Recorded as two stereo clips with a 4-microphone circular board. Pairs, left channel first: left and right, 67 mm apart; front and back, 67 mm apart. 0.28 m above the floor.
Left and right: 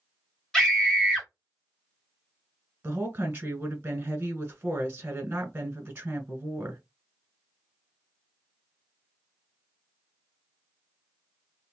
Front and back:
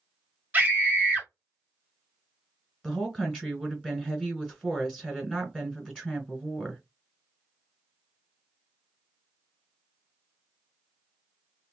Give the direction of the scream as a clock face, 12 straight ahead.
7 o'clock.